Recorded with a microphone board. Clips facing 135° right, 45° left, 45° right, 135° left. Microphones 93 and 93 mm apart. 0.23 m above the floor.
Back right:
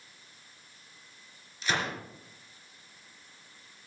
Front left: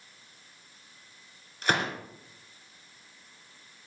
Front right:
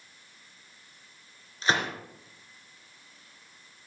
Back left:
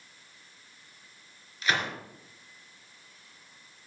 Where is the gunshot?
15° left, 3 m.